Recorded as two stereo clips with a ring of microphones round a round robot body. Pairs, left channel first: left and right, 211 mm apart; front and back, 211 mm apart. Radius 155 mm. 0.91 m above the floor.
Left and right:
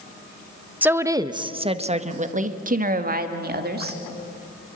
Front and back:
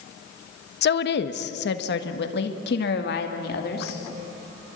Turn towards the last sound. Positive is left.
turn(degrees=-50)